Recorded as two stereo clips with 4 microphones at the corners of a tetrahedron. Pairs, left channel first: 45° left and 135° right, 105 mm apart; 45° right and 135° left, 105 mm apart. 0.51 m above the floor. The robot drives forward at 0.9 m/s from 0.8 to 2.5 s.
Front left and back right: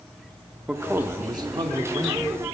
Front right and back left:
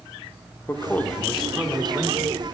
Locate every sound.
0.7 s a man speaking: 75° right, 0.9 m; by 2.3 s 165° right, 1.5 m